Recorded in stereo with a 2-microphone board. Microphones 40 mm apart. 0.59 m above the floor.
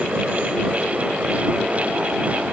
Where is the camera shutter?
No camera shutter in this recording.